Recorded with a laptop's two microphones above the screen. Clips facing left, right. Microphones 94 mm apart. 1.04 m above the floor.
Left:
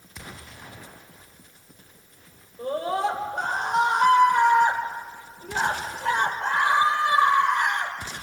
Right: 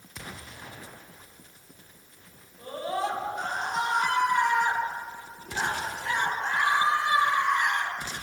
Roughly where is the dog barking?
No dog barking in this recording.